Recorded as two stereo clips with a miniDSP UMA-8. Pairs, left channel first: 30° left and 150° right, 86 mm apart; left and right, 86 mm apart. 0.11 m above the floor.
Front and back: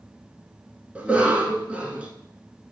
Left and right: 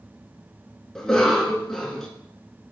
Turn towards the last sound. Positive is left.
turn(degrees=165)